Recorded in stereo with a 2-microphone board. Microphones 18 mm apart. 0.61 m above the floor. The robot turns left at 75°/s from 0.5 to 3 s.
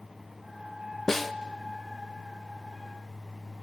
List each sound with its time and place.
1.1 s a snare drum: 20° left (ahead or behind), 0.8 m; by 1.3 s centre (ahead or behind), 0.8 m